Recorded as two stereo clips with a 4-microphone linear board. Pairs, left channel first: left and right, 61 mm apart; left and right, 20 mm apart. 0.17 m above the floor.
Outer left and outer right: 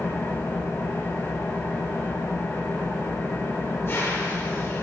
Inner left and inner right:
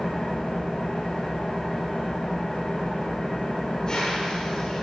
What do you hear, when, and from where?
0.0 s an engine running: 45° left (ahead or behind), 7 m